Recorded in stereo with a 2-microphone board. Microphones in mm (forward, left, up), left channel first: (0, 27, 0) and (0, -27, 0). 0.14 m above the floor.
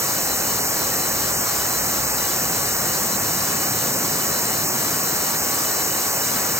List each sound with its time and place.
0.0 s running water: 70° right (ahead or behind)